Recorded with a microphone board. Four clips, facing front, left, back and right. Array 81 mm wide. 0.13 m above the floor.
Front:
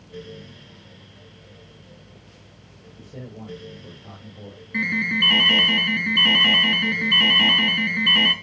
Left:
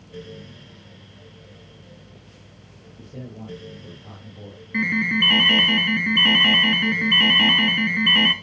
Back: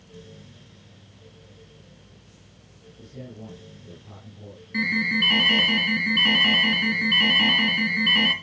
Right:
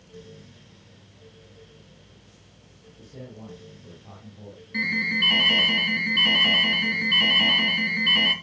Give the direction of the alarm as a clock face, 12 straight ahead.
10 o'clock.